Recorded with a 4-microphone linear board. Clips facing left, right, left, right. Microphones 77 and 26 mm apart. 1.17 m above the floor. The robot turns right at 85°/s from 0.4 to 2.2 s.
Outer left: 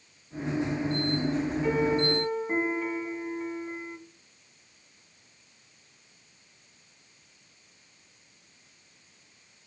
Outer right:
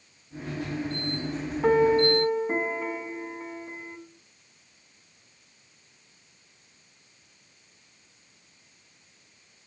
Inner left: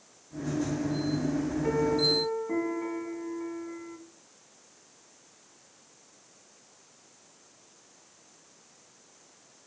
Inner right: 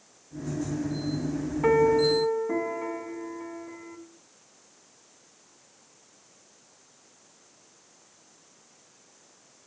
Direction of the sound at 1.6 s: 65° right.